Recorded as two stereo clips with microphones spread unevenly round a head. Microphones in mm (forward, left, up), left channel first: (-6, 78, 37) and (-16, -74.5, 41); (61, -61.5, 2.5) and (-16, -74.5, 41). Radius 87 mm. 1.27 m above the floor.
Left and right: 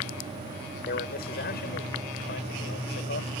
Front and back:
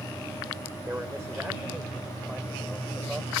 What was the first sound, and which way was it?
A man speaking, 115° left.